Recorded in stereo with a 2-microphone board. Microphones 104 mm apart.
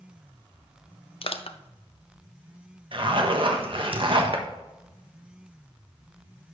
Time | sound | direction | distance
1.2 | crushing | 60° left (ahead or behind) | 0.6 m
2.9 | a zipper | 55° right (ahead or behind) | 1.2 m